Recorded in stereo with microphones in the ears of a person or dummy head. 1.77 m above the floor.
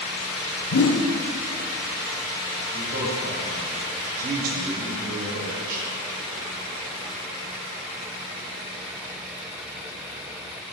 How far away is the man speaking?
About 1.8 m.